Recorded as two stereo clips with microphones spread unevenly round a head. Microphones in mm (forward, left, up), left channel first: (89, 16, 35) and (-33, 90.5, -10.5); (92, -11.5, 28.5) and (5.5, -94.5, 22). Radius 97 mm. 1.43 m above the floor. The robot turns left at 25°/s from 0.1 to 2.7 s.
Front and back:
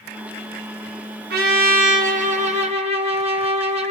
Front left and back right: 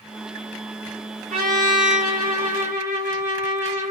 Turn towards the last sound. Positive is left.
turn(degrees=95)